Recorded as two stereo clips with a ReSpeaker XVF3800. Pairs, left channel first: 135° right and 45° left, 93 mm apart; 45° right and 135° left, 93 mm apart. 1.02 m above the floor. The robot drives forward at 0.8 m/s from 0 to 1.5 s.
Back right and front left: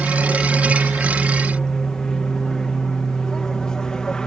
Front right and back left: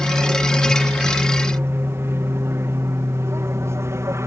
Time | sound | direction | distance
0.0 | an aircraft | 145° left | ?